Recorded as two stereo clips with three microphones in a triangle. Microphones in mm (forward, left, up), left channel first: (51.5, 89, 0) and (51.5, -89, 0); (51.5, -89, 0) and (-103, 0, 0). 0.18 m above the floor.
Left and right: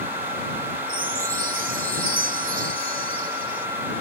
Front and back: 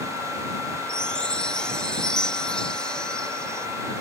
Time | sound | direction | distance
0.9 | a chime | 115° right | ?